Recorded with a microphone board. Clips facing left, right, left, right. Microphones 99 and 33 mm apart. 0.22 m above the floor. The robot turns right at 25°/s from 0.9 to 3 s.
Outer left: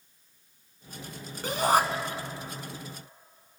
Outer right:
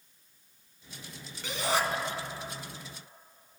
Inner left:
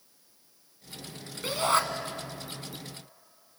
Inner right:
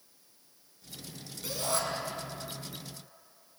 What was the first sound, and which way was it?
A shout, 45° left (ahead or behind).